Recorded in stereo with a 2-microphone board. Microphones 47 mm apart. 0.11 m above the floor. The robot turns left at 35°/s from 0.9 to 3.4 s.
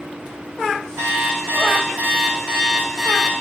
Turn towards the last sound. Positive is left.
turn(degrees=170)